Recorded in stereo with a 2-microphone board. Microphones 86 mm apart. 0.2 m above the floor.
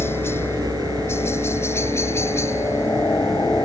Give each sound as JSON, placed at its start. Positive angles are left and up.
{"t": 0.0, "sound": "a helicopter", "side_deg": 30}